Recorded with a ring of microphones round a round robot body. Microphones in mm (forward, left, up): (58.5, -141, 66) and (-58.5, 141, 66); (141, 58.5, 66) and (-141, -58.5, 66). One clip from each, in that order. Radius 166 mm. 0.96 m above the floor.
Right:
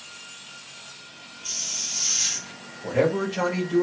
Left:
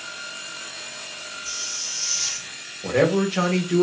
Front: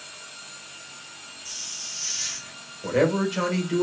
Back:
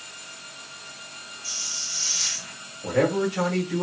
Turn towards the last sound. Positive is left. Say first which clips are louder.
# left 3 dB, even
turn(degrees=85)